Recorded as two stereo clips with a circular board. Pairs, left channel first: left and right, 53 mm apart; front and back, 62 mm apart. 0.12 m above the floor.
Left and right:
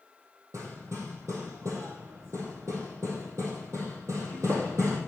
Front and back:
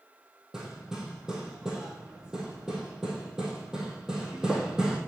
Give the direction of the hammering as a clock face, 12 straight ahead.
3 o'clock.